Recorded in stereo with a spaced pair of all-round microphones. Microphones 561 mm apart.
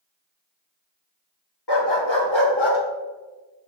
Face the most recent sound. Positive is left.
turn(degrees=55)  # may be behind; listen again after turning